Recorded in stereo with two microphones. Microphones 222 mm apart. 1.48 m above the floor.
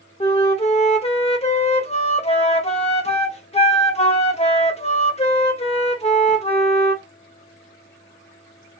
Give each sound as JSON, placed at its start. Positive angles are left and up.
{"t": 0.2, "sound": "a flute", "side_deg": 30, "distance_m": 0.8}